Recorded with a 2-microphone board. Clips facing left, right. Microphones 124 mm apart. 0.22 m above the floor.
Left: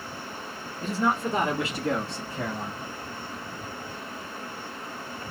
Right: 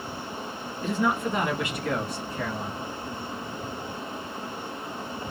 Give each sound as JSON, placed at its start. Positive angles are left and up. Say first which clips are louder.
{"t": 0.8, "sound": "a man speaking", "louder": "even", "side_deg": 40, "distance_m": 1.9}